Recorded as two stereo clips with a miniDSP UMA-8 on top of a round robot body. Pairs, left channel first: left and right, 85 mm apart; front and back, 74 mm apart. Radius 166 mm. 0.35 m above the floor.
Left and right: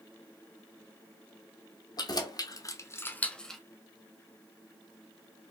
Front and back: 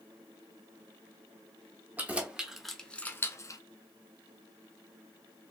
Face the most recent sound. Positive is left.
turn(degrees=0)